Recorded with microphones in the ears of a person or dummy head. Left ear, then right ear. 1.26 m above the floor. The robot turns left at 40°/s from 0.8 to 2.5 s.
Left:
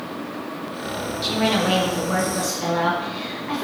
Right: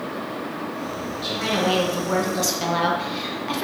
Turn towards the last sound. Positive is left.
turn(degrees=-25)